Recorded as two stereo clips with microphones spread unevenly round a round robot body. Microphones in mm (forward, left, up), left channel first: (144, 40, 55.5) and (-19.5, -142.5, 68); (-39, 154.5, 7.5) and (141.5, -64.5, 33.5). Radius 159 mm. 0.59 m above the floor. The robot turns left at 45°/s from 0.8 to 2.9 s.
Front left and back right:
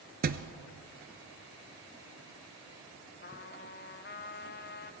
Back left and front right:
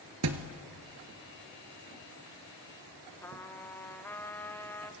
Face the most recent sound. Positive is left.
turn(degrees=55)